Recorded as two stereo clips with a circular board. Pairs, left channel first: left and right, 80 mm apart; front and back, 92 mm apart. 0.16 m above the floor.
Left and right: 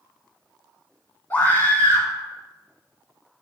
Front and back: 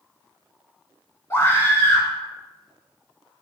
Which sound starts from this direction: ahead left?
A scream, at 1.3 s.